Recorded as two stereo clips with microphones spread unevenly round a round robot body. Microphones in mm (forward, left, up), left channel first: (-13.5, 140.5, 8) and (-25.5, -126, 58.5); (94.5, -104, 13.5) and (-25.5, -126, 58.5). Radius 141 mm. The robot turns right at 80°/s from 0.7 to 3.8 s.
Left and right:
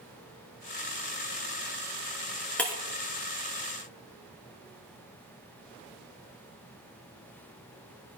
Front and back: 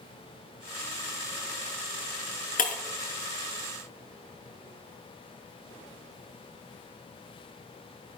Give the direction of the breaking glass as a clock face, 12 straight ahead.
12 o'clock.